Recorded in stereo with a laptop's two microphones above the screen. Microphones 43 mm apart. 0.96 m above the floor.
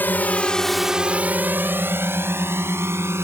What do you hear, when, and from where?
0.0 s a drone: 50° left (ahead or behind); by 3.2 s 75° right (ahead or behind)